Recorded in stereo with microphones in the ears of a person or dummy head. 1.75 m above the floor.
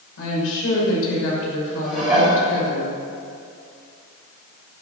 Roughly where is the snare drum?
I don't hear a snare drum.